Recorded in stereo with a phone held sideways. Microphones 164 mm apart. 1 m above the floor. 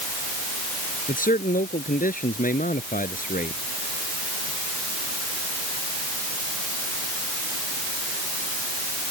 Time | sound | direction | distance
1.1 | a man speaking | 55° left (ahead or behind) | ?